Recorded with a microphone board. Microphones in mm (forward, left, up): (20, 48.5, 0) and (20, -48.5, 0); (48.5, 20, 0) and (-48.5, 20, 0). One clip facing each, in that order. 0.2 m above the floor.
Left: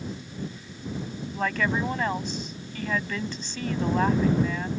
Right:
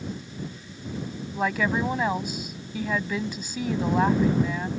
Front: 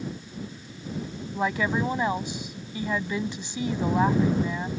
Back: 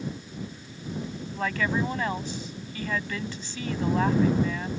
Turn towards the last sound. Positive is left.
turn(degrees=-25)